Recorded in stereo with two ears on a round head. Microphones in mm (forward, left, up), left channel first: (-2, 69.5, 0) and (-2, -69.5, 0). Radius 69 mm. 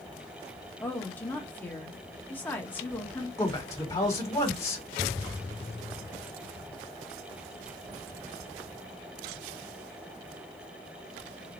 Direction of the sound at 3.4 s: 20° left (ahead or behind).